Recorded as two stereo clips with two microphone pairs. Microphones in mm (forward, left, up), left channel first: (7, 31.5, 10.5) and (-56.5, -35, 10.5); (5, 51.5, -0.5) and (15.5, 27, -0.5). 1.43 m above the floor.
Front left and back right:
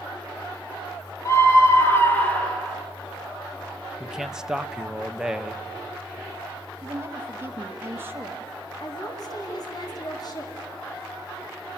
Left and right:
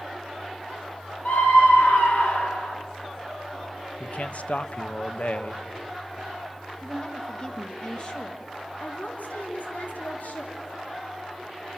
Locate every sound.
1.2 s a scream: 100° left, 4.5 m; by 2.8 s 130° left, 3 m
4.0 s a man speaking: 145° left, 1.3 m
6.8 s a woman speaking: 165° left, 2.5 m
8.8 s a woman speaking: 90° left, 4 m